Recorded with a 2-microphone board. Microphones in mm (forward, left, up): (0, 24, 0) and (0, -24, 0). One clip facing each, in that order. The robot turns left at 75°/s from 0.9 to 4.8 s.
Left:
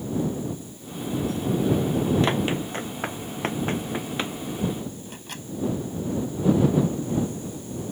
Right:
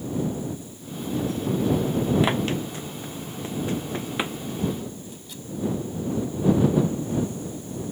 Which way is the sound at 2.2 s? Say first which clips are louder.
Even; 10° right (ahead or behind).